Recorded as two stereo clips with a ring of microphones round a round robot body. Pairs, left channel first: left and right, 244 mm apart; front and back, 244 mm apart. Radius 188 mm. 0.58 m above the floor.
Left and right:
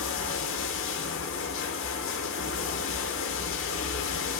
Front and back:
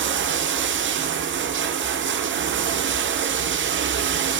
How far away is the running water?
About 0.9 m.